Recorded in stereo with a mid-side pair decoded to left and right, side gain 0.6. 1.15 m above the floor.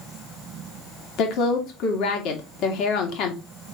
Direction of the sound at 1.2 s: 65° left.